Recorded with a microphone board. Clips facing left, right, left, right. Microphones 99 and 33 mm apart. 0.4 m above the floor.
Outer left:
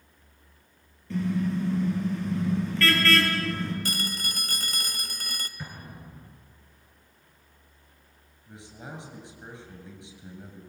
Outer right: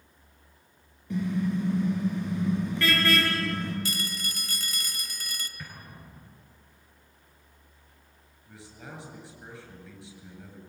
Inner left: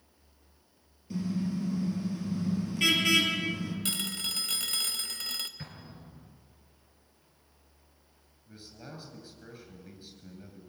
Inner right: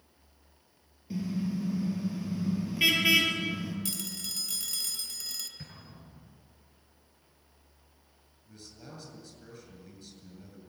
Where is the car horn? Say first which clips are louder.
Outer left 1 dB, even; 15° right (ahead or behind), 5.5 m.